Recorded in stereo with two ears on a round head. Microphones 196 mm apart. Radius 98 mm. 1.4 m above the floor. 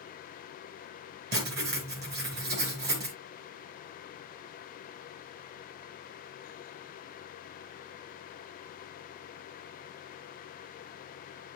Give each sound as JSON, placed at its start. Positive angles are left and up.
{"t": 1.3, "sound": "writing", "side_deg": -45, "distance_m": 3.5}